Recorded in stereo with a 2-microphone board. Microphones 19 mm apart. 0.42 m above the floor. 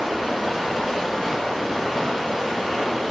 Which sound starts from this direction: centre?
Running water, at 0.0 s.